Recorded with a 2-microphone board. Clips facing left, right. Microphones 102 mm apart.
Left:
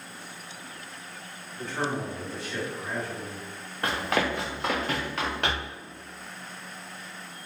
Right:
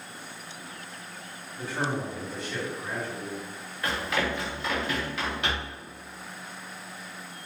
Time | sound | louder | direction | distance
1.6 | a man speaking | even | 10° right (ahead or behind) | 1.5 m
3.8 | running footsteps | left 2 dB | 55° left (ahead or behind) | 1.1 m